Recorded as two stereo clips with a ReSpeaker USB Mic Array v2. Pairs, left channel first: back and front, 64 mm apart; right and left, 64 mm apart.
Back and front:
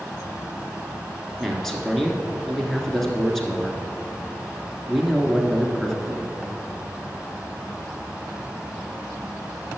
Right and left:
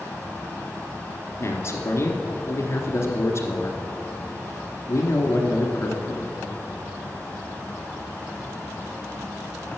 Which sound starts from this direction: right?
A man speaking, at 1.4 s.